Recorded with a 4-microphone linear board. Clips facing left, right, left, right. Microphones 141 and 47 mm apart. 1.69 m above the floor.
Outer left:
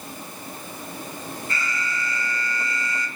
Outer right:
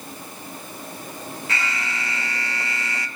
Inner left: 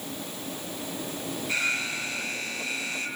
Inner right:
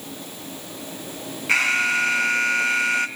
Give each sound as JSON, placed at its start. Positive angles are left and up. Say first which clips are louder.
{"t": 1.5, "sound": "an alarm", "louder": "outer right 2 dB, inner right 10 dB", "side_deg": -80, "distance_m": 1.8}